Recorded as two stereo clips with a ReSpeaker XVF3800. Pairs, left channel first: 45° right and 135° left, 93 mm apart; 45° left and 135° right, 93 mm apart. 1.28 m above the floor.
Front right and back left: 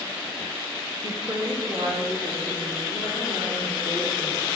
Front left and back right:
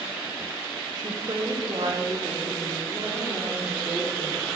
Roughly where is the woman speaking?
Behind.